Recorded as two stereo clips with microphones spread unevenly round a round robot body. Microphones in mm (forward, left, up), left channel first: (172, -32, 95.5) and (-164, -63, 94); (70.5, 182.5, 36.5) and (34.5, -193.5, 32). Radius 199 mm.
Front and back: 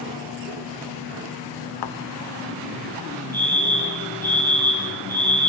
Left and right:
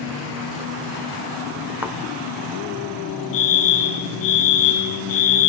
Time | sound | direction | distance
1.8 | a thud | 10° right | 1.3 m
3.3 | a fire alarm | 90° left | 5 m